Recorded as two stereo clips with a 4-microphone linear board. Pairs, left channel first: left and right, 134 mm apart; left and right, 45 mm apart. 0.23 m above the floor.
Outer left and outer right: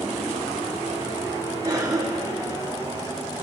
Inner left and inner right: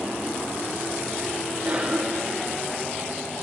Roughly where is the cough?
Right.